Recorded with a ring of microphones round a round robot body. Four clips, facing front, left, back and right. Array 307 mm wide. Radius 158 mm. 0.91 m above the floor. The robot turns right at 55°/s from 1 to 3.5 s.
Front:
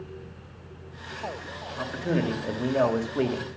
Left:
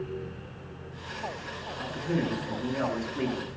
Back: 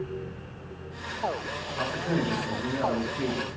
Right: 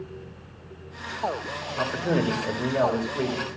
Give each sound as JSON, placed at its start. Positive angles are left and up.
{"t": 1.8, "sound": "a man speaking", "azimuth_deg": -90, "distance_m": 2.5}